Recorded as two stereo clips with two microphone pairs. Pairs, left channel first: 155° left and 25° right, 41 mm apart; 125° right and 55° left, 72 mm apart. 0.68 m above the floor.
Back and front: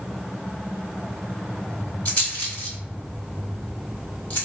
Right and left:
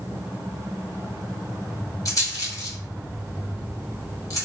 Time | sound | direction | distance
2.0 | a rattle | 160° right | 1.6 m